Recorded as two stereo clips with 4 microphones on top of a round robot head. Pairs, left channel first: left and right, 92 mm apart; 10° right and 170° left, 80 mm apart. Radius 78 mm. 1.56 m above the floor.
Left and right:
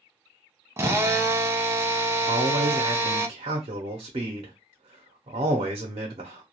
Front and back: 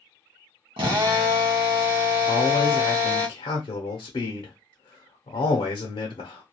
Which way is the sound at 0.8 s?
155° right.